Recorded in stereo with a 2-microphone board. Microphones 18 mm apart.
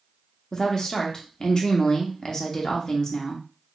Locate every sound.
0.5 s a woman speaking: 35° left (ahead or behind), 0.7 m